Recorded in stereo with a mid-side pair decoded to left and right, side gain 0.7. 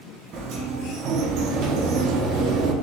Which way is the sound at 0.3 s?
50° right.